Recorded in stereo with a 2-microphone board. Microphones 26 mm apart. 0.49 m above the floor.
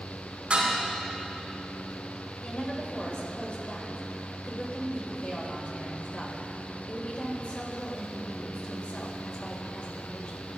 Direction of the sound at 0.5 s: 45° right (ahead or behind).